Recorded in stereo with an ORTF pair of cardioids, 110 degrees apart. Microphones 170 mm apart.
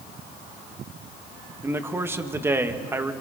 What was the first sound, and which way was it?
A man speaking, 15° right.